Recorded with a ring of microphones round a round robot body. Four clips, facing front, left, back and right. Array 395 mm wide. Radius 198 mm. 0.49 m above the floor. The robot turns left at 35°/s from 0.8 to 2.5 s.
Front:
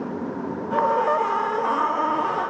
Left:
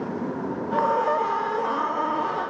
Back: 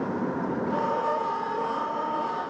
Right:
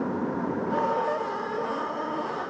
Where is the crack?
No crack in this recording.